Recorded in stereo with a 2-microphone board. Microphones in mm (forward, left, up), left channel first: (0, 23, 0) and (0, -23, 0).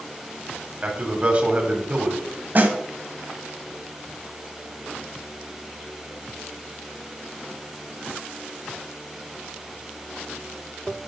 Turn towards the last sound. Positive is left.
turn(degrees=-45)  # may be behind; listen again after turning